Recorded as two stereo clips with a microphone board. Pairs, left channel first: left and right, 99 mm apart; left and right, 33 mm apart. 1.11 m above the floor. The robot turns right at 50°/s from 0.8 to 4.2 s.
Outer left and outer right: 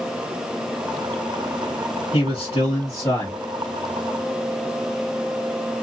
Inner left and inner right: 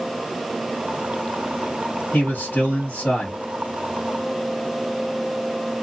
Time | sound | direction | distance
2.1 | a man speaking | 65° left | 1.4 m